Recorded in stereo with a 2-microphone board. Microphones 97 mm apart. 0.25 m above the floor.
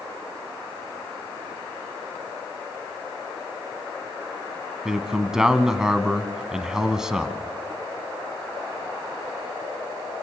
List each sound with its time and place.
4.8 s a man speaking: 5° right (ahead or behind), 1.7 m